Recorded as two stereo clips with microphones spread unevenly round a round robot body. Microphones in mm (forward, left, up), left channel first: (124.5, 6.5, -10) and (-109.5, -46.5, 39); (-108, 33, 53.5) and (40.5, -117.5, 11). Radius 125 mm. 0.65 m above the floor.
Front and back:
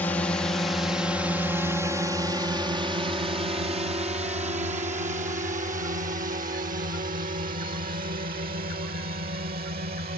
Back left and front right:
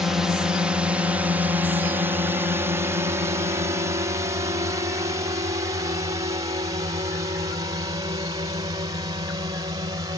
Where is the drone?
Straight ahead; by 10.2 s 115° right.